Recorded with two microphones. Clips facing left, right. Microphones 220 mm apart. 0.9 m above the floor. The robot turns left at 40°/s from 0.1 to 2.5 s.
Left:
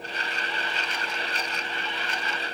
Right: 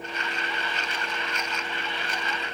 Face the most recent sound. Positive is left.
No sound to turn to.